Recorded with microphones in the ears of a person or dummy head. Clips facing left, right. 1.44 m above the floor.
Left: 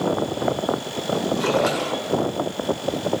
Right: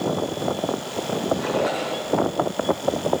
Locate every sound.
1.4 s a splash: 70° left (ahead or behind), 4.5 m